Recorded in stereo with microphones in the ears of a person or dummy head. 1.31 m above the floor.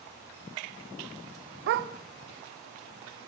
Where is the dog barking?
50° right (ahead or behind), 1.1 m.